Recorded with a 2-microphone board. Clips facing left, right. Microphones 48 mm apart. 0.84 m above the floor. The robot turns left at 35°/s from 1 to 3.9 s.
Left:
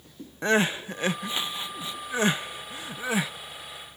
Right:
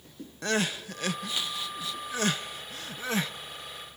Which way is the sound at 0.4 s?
25° left (ahead or behind).